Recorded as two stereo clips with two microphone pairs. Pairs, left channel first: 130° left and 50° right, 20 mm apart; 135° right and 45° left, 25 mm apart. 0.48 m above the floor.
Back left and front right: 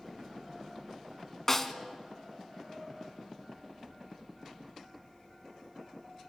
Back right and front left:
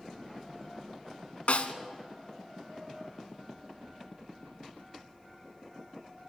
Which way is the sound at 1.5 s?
160° right.